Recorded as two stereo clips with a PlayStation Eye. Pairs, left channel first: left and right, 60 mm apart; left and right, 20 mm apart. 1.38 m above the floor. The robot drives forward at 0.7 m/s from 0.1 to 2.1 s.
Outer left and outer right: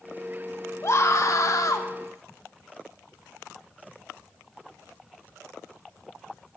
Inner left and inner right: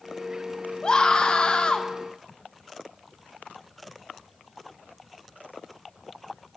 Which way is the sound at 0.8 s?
55° left (ahead or behind).